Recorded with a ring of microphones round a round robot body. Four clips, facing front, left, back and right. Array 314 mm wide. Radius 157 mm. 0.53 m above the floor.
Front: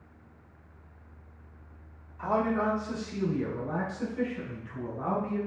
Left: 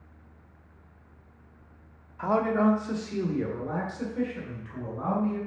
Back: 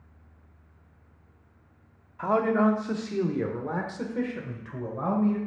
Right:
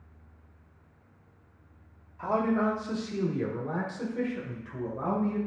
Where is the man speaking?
140° left, 1.1 m; by 5.4 s 175° right, 2.5 m.